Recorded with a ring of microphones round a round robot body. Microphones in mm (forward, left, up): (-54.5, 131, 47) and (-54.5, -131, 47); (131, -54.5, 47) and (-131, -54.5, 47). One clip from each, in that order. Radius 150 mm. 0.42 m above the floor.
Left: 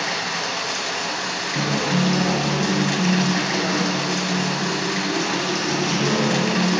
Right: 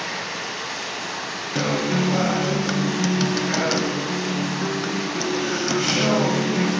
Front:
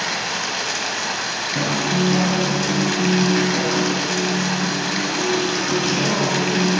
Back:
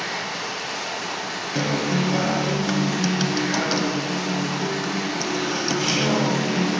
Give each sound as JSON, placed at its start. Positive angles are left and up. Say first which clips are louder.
{"t": 0.0, "sound": "running water", "louder": "left 4 dB, front 5 dB", "azimuth_deg": 25, "distance_m": 1.1}
{"t": 1.6, "sound": "a guitar", "louder": "right 1 dB, front 1 dB", "azimuth_deg": -110, "distance_m": 0.7}